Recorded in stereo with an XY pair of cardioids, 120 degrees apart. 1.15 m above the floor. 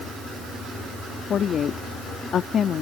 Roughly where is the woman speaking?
Ahead left.